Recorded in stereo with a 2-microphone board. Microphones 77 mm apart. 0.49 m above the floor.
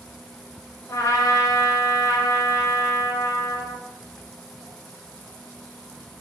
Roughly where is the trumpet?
Left.